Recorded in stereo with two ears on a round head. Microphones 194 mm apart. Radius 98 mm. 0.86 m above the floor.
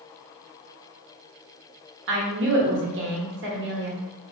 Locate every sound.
2.1 s a woman speaking: 55° right (ahead or behind), 1.0 m